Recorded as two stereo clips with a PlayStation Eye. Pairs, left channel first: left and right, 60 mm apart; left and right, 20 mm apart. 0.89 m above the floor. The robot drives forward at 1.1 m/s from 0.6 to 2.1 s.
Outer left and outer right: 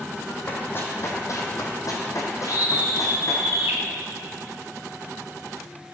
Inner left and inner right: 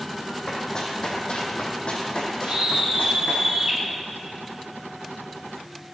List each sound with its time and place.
0.5 s running footsteps: 30° left (ahead or behind), 2.5 m; by 3.4 s 55° left (ahead or behind), 3 m
2.5 s a scream: 35° right (ahead or behind), 2 m